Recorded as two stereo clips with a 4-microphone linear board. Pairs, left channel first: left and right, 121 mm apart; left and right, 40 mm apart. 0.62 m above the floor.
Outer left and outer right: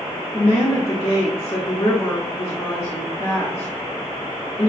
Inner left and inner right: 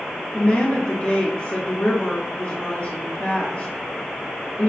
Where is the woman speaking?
50° left (ahead or behind), 1.3 m.